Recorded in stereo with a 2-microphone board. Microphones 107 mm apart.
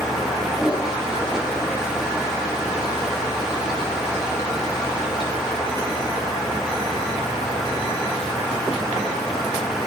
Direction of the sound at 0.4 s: 5° right (ahead or behind).